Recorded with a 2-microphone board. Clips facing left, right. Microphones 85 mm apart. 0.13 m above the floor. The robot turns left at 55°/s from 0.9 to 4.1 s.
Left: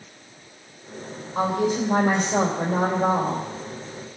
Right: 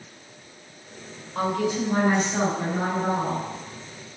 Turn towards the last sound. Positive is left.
turn(degrees=15)